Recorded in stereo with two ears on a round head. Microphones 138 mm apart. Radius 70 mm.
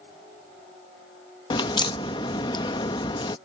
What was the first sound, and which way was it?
A crack, 30° left (ahead or behind).